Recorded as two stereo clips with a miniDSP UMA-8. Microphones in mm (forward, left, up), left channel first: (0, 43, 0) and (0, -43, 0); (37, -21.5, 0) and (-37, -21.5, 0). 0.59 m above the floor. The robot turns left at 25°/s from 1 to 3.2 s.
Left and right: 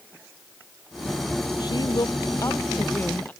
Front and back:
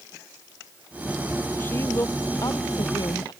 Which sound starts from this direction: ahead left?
A woman speaking, at 1.6 s.